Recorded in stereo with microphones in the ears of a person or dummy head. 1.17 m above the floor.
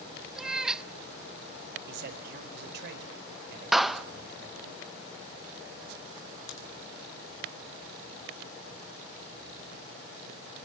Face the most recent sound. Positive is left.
turn(degrees=75)  # may be behind; listen again after turning